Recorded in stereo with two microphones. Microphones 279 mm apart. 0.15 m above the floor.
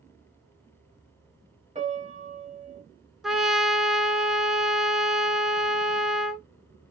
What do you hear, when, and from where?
1.8 s a piano: 25° right (ahead or behind), 1.4 m
3.2 s a trumpet: centre (ahead or behind), 0.5 m